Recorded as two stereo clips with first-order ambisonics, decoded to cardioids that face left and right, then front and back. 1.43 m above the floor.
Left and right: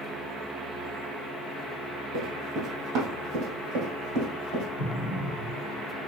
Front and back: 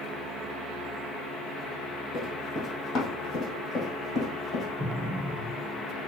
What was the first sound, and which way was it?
Running footsteps, 60° right.